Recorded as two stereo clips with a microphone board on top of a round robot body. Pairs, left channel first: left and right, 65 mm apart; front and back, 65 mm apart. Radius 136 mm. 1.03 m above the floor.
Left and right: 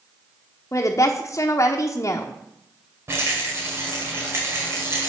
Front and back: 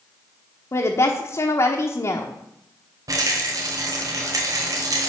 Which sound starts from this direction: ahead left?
A woman speaking, at 0.7 s.